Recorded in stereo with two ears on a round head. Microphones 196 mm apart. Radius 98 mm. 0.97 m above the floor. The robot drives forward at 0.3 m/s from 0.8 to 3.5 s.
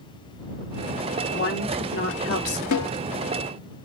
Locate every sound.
1.3 s a woman speaking: 55° left (ahead or behind), 1.7 m; by 2.6 s 60° left (ahead or behind), 1.6 m
2.7 s a snare drum: 80° left, 1.2 m